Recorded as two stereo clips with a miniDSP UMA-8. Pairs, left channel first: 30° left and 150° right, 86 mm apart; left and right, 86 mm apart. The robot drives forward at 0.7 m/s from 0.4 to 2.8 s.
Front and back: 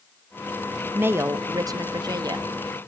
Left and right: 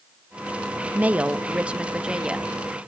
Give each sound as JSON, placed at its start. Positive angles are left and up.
{"t": 0.9, "sound": "a woman speaking", "azimuth_deg": -130, "distance_m": 0.8}